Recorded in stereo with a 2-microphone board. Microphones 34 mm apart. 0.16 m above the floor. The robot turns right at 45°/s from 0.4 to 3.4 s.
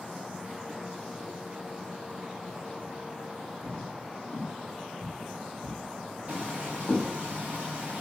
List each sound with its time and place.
3.6 s footsteps: 20° left (ahead or behind), 7 m; by 7.1 s 40° left (ahead or behind), 8 m
6.3 s frying: 30° right (ahead or behind), 3 m